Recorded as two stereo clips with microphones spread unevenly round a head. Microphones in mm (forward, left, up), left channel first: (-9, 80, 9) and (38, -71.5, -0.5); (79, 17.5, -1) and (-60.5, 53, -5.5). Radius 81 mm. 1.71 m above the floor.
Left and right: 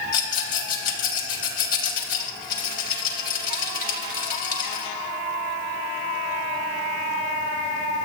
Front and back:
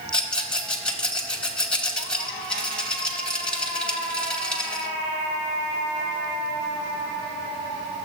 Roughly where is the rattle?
Left.